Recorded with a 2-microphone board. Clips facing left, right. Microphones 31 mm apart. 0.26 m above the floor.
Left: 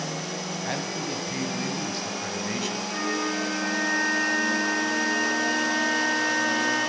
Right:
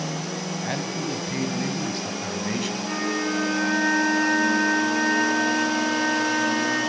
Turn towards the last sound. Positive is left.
turn(degrees=-75)  # may be behind; listen again after turning